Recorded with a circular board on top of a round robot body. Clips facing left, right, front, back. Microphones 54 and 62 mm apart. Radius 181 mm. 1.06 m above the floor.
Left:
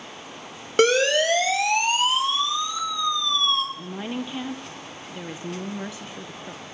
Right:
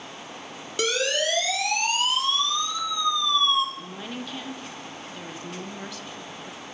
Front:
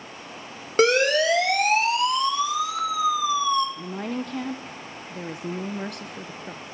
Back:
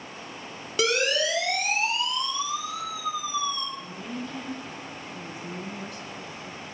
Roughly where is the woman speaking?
Ahead.